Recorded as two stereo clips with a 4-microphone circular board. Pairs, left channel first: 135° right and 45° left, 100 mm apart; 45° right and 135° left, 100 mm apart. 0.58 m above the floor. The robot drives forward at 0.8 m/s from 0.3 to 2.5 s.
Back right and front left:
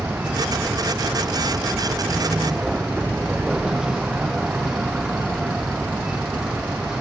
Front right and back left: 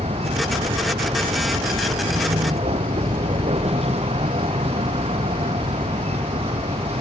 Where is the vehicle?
125° left; by 7.0 s 130° left.